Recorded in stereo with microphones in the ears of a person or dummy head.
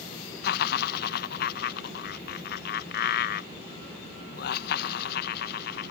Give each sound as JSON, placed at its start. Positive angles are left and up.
{"t": 0.4, "sound": "laughter", "side_deg": 60}